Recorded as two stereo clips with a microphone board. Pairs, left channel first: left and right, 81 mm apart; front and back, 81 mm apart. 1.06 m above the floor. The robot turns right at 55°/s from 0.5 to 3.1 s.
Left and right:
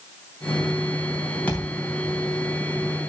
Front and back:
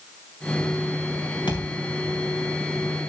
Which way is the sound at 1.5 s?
15° left.